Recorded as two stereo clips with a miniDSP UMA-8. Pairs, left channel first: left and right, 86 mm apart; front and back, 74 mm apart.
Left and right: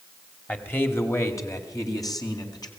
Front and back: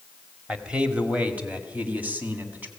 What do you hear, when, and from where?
0.5 s a man speaking: 125° left, 1.6 m; by 2.7 s 115° left, 3 m